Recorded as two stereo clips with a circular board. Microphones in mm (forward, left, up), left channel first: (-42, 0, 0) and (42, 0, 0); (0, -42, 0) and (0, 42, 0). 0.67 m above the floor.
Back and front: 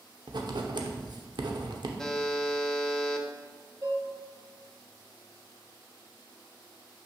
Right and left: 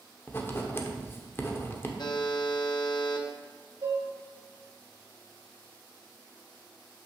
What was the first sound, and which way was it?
Writing, 25° right.